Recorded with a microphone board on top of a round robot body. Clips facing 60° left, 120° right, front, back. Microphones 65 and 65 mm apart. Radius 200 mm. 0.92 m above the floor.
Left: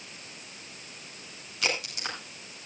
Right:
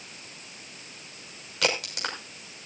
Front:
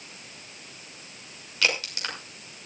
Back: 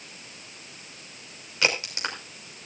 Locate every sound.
1.6 s a crack: 115° right, 6 m